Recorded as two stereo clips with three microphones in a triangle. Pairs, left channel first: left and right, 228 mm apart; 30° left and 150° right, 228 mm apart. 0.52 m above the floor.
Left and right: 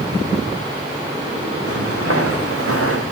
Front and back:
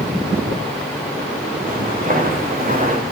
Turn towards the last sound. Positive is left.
turn(degrees=-95)